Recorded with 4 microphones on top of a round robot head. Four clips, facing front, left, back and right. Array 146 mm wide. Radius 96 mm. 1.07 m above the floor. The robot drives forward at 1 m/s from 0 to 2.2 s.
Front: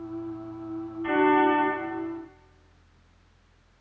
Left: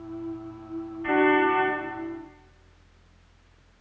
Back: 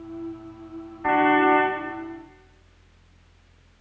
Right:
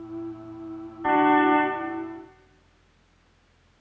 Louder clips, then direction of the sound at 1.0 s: Right 2 dB, back 3 dB; 135° right.